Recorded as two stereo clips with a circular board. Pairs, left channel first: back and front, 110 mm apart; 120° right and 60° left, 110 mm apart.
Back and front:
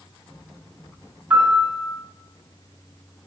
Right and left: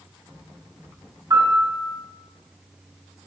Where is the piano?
70° left, 1.3 m.